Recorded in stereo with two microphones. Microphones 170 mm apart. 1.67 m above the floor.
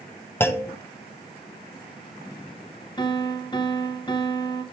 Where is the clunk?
15° left (ahead or behind), 0.5 m.